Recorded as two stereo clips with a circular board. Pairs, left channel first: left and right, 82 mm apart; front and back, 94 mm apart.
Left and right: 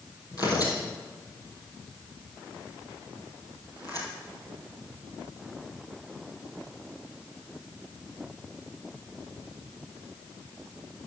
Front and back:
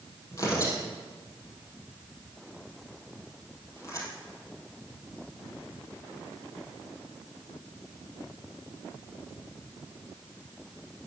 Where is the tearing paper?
55° left, 3 m.